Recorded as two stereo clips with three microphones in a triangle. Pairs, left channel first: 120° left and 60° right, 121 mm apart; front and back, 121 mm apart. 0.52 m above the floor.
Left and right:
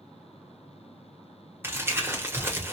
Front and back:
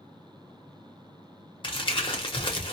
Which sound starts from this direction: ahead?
Crumpling, at 1.6 s.